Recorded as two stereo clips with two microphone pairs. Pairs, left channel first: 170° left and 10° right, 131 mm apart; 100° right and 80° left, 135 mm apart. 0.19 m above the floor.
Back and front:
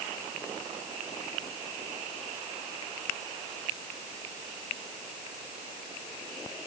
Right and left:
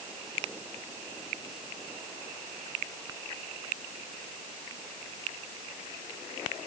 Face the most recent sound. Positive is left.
No sound to turn to.